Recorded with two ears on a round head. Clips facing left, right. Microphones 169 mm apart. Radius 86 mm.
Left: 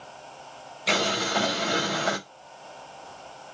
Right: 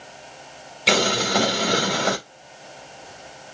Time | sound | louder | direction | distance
0.9 | boiling | right 5 dB | 75° right (ahead or behind) | 2 m